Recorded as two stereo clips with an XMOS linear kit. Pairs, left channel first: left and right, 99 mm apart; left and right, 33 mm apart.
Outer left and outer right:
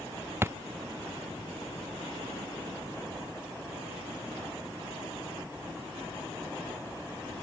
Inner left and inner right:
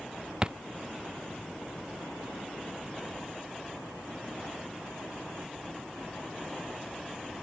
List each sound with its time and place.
0.4 s a thud: 25° right (ahead or behind)